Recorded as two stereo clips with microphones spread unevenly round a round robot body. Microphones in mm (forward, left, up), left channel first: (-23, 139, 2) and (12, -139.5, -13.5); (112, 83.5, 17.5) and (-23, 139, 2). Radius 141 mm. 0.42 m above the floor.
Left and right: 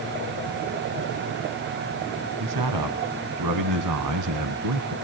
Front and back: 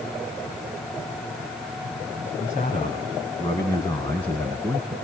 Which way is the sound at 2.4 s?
85° right.